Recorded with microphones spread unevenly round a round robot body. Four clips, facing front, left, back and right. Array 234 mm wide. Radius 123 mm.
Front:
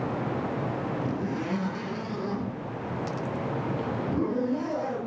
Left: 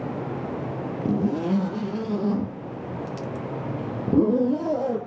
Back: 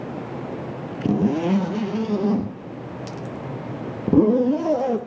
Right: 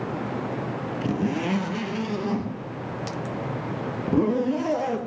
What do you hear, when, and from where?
1.1 s a zipper: 170° left, 2 m